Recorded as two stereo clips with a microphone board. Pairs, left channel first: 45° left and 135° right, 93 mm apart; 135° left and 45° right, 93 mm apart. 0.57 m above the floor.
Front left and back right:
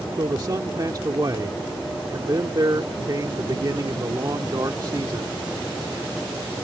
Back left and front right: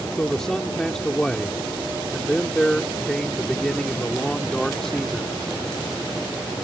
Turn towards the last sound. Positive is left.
turn(degrees=-145)